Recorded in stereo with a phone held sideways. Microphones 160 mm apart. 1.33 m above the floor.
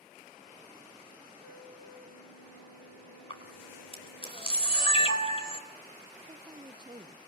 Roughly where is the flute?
Left.